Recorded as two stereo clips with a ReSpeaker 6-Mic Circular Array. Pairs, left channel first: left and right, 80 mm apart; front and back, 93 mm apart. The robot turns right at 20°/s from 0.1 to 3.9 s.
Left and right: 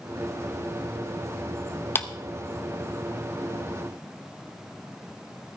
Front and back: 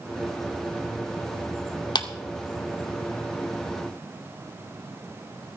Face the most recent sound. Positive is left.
turn(degrees=70)